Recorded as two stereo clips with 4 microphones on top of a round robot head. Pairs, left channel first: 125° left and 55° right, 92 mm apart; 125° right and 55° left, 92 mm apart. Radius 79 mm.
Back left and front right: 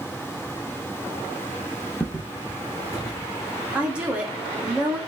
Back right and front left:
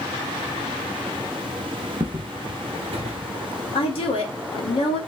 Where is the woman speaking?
135° right, 1.6 m.